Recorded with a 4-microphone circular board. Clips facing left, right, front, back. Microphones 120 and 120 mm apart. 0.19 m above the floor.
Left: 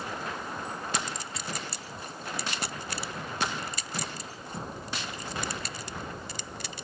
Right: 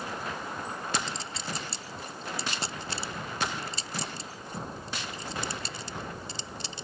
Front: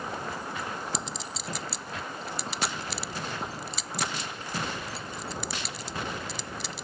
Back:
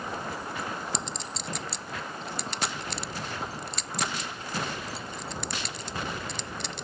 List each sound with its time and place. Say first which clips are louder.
0.9 s a clink: right 1 dB, even; 85° right